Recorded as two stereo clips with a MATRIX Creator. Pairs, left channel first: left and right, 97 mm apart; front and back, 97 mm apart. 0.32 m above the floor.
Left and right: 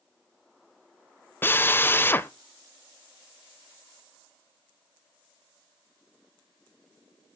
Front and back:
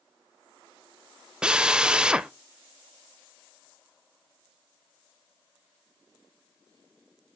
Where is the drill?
115° left, 0.6 m.